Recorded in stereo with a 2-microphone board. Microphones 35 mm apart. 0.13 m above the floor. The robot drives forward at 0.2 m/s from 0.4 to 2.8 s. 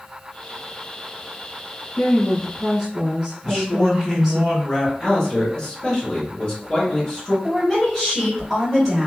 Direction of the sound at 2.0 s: 15° right (ahead or behind).